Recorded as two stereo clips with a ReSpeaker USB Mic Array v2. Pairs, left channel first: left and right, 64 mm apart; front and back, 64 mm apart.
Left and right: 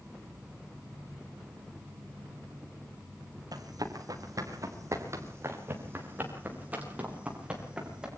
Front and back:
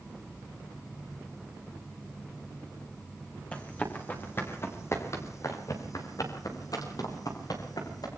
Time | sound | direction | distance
3.5 | running footsteps | 70° right | 6 m